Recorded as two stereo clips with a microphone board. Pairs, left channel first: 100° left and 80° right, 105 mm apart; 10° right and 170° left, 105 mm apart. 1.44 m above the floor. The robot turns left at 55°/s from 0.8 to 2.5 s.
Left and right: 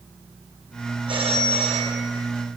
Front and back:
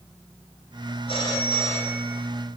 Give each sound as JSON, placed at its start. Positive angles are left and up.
{"t": 1.1, "sound": "a phone ringing", "azimuth_deg": -45, "distance_m": 5.0}